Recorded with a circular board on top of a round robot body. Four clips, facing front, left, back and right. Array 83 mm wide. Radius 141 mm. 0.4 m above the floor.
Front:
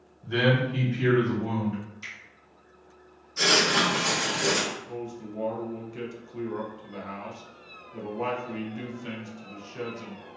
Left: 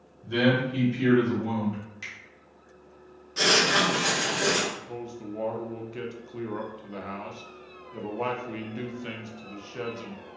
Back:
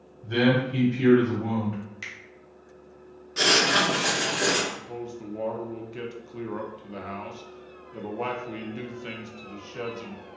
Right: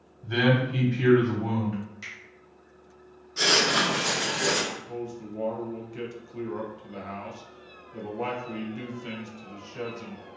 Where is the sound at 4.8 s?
130° left, 0.8 m.